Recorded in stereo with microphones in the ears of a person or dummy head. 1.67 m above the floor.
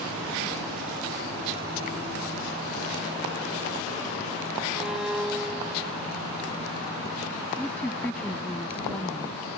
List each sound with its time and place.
4.7 s a violin: 5° right (ahead or behind)
7.6 s a woman speaking: 5° left (ahead or behind)